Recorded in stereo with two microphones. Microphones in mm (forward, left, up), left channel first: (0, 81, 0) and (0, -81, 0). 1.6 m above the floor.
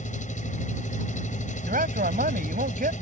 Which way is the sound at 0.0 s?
50° left (ahead or behind).